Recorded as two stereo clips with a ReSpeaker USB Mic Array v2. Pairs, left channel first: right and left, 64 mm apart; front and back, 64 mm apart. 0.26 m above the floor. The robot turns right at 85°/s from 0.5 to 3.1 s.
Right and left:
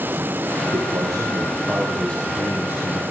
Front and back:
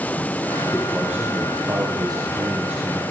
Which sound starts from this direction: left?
A man speaking, at 0.7 s.